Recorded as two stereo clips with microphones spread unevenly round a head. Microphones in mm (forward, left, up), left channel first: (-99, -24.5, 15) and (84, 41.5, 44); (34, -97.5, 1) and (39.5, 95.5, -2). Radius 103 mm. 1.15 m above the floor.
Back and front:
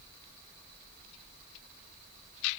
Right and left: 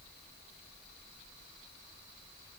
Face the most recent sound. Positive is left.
No sound to turn to.